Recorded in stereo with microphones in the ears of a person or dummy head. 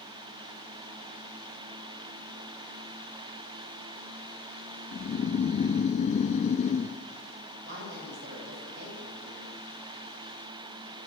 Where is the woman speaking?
65° right (ahead or behind), 6.5 m.